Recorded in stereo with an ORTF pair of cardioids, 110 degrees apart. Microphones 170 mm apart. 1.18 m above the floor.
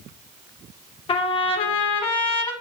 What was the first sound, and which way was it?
A trumpet, 35° left.